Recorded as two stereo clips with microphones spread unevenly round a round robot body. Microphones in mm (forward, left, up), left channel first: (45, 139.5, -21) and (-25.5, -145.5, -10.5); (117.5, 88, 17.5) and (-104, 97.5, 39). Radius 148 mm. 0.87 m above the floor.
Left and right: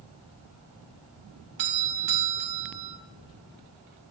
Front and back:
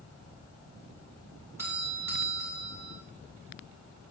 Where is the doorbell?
100° right, 1.9 m.